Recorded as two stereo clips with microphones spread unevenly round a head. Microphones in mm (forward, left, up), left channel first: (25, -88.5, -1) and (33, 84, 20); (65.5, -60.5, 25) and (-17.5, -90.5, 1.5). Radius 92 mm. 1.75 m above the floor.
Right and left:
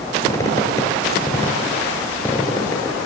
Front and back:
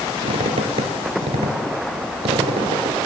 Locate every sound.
0.2 s a squeak: 170° right, 3 m